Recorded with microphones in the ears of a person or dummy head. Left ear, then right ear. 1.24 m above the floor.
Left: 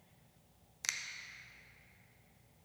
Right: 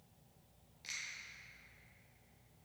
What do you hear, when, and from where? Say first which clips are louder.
0.8 s a finger snap: left 6 dB; 55° left (ahead or behind), 0.6 m